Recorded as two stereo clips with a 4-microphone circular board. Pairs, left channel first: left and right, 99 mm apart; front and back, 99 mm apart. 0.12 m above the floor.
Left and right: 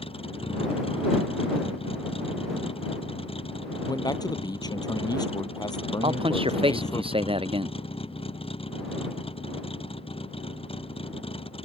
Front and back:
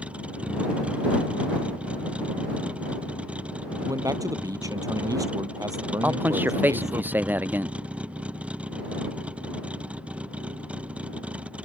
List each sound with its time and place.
0.0 s a vehicle: 100° left
3.9 s a man speaking: 130° left
6.0 s a man speaking: 110° right